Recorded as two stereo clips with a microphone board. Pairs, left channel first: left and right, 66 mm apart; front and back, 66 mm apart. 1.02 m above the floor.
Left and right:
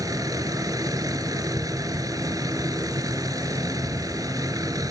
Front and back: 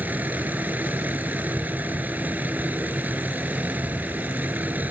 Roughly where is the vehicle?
Behind right.